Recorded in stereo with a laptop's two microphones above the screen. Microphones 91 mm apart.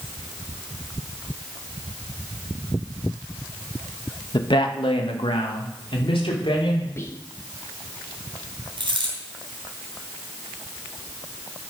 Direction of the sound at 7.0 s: 30° left (ahead or behind).